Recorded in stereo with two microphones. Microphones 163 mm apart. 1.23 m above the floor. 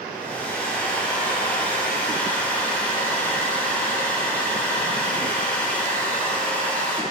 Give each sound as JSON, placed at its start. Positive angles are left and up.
{"t": 0.1, "sound": "a hair dryer", "side_deg": 10, "distance_m": 1.3}